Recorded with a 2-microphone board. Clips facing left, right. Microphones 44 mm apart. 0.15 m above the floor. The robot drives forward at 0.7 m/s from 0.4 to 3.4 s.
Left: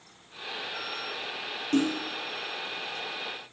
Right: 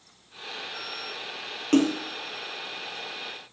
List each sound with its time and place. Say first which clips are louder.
1.7 s a splash: right 4 dB; 70° right (ahead or behind), 0.6 m; by 2.0 s 80° right, 0.6 m